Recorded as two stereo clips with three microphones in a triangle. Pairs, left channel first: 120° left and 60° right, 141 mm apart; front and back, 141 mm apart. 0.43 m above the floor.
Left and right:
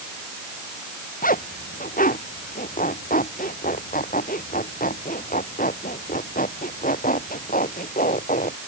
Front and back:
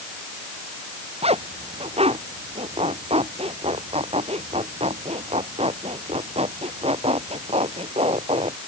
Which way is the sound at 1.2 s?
135° left.